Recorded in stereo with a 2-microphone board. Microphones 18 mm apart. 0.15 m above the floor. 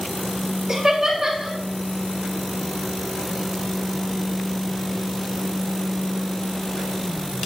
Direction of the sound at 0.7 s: 30° right (ahead or behind).